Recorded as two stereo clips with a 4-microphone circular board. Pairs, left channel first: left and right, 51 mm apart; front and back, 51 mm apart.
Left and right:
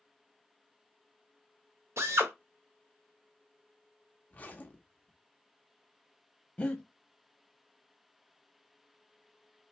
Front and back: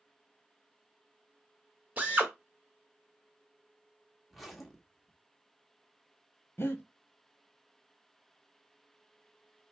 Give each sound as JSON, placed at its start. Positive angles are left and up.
{"t": 2.0, "sound": "a drill", "azimuth_deg": -120, "distance_m": 1.5}
{"t": 4.3, "sound": "a zipper", "azimuth_deg": 90, "distance_m": 0.9}
{"t": 6.6, "sound": "breathing", "azimuth_deg": 35, "distance_m": 1.2}